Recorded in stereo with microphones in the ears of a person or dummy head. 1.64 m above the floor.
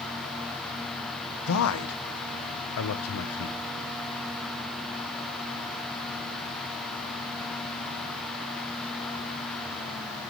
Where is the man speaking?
80° left, 1.1 m.